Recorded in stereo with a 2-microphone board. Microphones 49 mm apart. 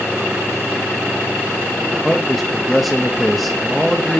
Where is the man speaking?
Centre (ahead or behind), 0.7 m.